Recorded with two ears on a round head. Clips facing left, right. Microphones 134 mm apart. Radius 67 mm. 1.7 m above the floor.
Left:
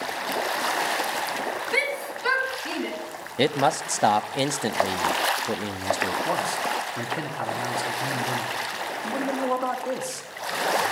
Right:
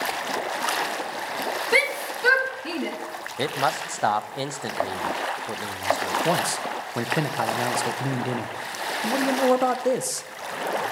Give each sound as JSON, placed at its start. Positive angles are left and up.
{"t": 1.7, "sound": "a shout", "side_deg": -75, "distance_m": 2.5}
{"t": 3.4, "sound": "a man speaking", "side_deg": 25, "distance_m": 0.5}
{"t": 6.2, "sound": "a man speaking", "side_deg": -60, "distance_m": 0.9}